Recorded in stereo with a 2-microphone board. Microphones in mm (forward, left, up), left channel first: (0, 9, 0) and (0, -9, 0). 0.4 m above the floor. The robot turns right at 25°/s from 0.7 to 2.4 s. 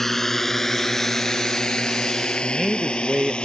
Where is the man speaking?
5° right (ahead or behind).